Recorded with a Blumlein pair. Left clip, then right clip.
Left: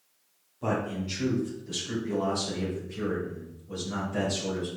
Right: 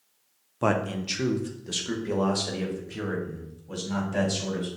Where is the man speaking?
55° right, 0.8 m; by 4.7 s 60° right, 3.5 m.